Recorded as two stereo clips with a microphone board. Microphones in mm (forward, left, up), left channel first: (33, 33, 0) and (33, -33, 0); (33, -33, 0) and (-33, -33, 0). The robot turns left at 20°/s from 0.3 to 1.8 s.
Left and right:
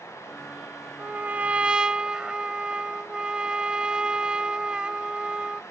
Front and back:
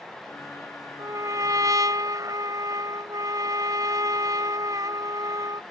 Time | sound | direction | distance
1.0 | a trumpet | 150° right | ?